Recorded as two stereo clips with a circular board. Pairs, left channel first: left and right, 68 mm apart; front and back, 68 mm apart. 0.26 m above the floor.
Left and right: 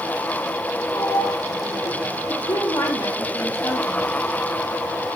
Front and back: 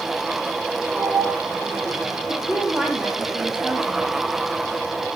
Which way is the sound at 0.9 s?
100° left.